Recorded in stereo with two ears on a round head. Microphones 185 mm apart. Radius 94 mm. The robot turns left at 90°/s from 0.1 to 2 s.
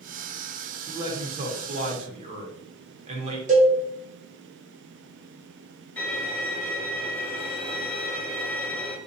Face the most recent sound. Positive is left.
turn(degrees=5)  # may be behind; listen again after turning